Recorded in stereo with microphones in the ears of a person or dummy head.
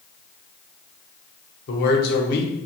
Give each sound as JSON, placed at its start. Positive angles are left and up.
{"t": 1.7, "sound": "a man speaking", "side_deg": 60, "distance_m": 1.3}